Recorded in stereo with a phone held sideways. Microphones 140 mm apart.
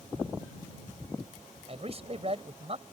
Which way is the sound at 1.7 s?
45° right (ahead or behind).